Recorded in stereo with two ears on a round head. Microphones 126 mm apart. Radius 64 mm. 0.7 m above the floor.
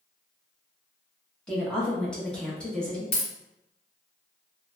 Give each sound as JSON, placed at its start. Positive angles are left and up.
{"t": 1.5, "sound": "a woman speaking", "side_deg": 5, "distance_m": 0.7}
{"t": 3.1, "sound": "a dropped coin", "side_deg": 50, "distance_m": 1.4}